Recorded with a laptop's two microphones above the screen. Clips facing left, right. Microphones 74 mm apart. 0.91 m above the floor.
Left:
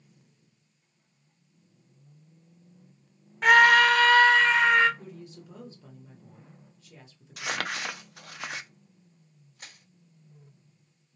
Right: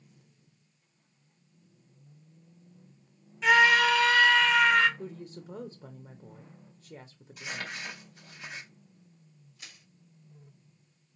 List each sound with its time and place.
3.4 s a scream: 50° left (ahead or behind), 0.8 m; by 4.9 s 30° left (ahead or behind), 1.0 m
5.0 s a woman speaking: 25° right (ahead or behind), 0.6 m
7.4 s crumpling: 65° left (ahead or behind), 0.5 m
9.6 s crushing: 40° left (ahead or behind), 2 m